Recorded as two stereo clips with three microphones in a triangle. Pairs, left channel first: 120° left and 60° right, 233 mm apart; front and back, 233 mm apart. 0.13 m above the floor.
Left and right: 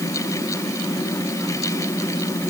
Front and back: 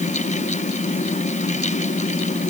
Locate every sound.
Only background noise.